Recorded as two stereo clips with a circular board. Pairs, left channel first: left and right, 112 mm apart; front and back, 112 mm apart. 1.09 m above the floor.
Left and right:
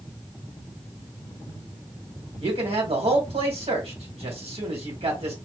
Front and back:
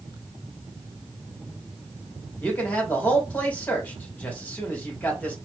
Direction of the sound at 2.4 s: 75° right.